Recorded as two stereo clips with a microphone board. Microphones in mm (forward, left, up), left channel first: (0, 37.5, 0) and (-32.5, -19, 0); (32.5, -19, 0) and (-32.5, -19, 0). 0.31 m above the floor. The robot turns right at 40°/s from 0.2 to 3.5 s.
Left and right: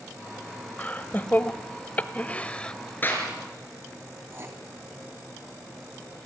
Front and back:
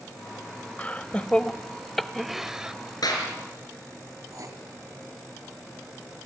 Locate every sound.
0.8 s laughter: 35° left, 1.0 m; by 2.7 s 115° left, 1.0 m
3.0 s a clap: straight ahead, 5 m; by 3.3 s 10° left, 5 m
4.3 s writing: 165° right, 2.5 m